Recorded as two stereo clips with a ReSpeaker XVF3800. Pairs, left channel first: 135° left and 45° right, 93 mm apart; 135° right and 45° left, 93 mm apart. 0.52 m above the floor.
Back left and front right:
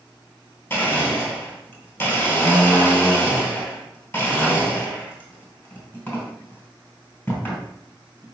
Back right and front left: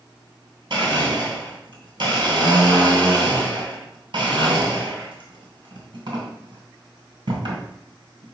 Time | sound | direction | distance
0.7 | a blender | 75° left | 2.5 m